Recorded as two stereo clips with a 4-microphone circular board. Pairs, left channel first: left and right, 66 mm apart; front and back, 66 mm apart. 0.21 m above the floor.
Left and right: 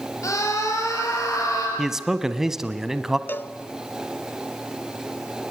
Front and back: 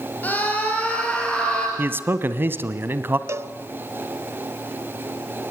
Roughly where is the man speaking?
Behind.